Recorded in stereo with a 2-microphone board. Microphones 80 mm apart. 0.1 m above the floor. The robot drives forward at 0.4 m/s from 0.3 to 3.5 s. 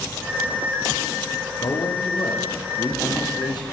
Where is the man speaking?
70° left (ahead or behind), 5 m.